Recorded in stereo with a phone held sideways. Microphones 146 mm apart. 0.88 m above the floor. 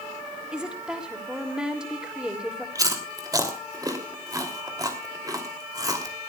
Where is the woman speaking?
5° right (ahead or behind), 2.5 m.